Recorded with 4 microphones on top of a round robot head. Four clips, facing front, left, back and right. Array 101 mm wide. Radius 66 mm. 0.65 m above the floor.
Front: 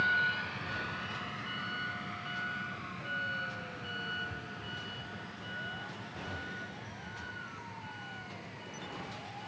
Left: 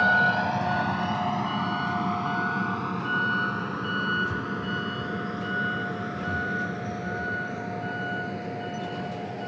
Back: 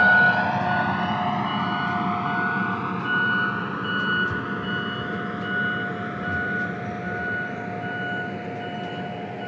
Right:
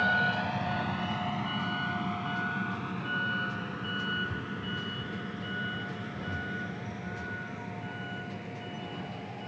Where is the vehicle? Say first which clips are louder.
Left 6 dB, back 14 dB; 160° left; by 9.5 s 150° left.